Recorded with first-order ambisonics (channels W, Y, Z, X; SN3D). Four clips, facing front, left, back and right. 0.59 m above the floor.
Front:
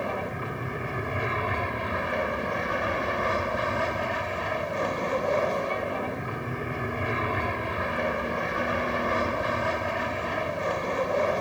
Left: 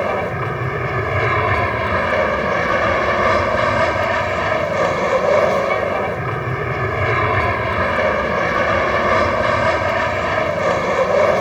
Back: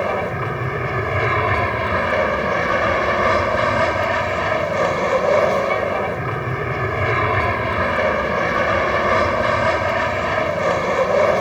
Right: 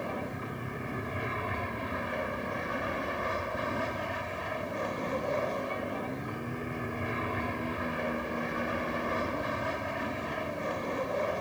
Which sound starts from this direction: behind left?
An aircraft, at 0.0 s.